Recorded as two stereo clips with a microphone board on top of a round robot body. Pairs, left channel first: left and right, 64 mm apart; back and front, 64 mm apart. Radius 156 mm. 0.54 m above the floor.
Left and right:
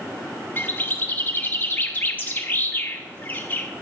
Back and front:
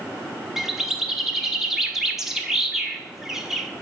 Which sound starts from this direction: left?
A bird, at 0.6 s.